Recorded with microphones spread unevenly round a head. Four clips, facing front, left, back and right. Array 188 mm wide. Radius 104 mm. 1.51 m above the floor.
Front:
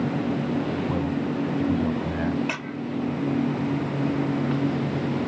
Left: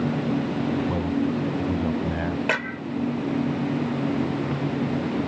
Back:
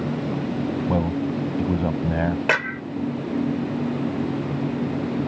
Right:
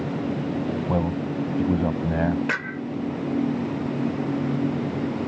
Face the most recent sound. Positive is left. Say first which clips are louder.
# left 1 dB, back 7 dB
turn(degrees=175)